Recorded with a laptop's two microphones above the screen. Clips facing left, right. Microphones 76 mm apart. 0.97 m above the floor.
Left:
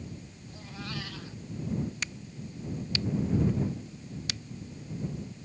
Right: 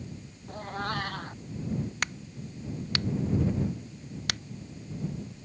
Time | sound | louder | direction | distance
0.5 | a cat meowing | right 8 dB | 50° right (ahead or behind) | ?
2.0 | a crack | right 4 dB | 55° right (ahead or behind) | ?